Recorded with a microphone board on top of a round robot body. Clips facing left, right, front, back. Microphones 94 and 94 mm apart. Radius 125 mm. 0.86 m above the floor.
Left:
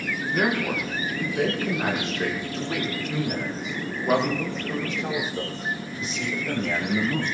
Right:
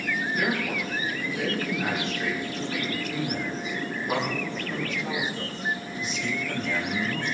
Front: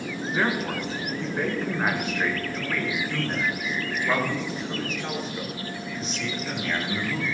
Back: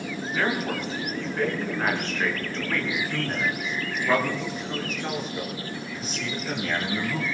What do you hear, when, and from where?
0.3 s a man speaking: 70° left, 8 m; by 7.2 s 95° left, 13 m